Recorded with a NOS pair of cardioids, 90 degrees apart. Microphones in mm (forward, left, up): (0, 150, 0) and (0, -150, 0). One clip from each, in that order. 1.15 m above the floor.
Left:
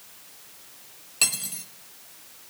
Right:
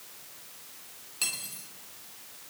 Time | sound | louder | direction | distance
1.2 | cutlery clinking | left 7 dB | 50° left | 0.9 m